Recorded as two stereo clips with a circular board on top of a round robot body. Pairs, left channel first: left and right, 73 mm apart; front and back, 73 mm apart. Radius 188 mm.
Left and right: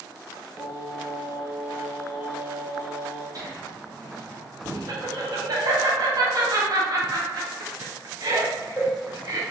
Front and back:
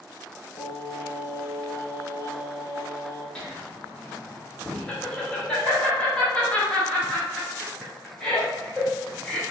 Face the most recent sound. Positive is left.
turn(degrees=-75)